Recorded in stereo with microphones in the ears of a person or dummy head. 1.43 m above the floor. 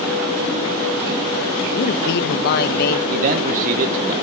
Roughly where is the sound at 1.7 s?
Left.